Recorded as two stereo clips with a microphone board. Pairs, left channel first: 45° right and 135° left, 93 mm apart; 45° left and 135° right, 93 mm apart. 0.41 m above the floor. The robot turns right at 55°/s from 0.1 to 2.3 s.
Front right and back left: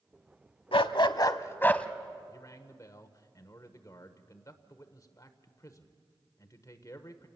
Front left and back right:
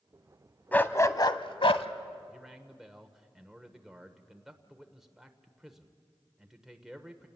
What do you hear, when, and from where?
0.7 s a dog barking: 30° right, 0.7 m; by 1.9 s 35° left, 0.7 m
2.3 s a man speaking: 55° right, 1.2 m; by 7.3 s 50° right, 1.2 m